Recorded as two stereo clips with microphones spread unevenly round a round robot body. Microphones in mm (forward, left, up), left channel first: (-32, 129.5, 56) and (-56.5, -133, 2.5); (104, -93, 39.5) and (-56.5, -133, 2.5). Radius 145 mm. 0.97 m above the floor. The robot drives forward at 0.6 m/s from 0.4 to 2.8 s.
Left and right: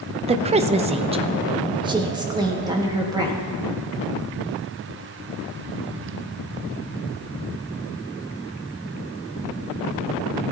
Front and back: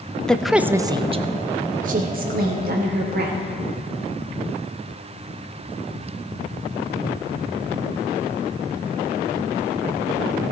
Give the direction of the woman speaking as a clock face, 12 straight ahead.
3 o'clock.